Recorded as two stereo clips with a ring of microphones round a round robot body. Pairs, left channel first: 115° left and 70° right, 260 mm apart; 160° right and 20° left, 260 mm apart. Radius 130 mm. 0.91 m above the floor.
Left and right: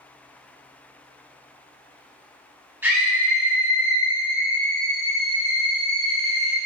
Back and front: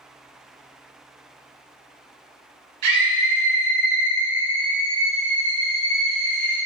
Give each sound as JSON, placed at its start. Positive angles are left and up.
{"t": 2.8, "sound": "a scream", "azimuth_deg": 15, "distance_m": 1.8}